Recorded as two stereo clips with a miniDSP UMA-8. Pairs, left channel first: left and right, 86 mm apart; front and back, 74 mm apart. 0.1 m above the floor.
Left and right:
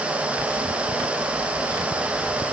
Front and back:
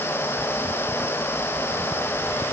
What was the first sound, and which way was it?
Only background noise.